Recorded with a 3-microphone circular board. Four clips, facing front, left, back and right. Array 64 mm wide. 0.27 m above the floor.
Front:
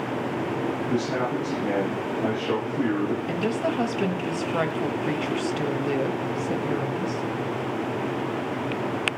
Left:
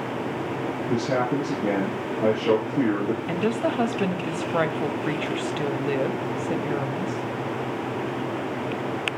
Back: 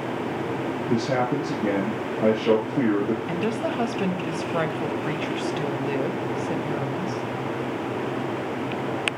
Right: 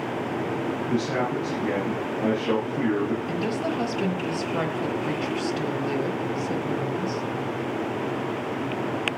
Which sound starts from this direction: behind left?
A man speaking, at 0.9 s.